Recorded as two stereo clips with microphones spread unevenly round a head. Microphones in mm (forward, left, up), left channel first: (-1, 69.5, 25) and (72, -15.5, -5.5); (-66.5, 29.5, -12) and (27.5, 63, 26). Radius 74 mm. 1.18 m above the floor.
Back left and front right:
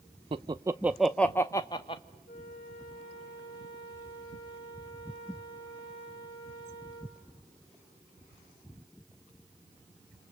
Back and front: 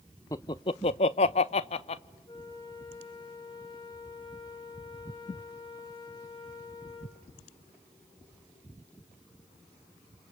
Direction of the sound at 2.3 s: 160° left.